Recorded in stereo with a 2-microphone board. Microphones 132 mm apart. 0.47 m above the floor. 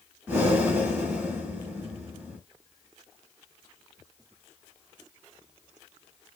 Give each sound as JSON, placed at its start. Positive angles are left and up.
{"t": 0.3, "sound": "breathing", "side_deg": -15, "distance_m": 3.0}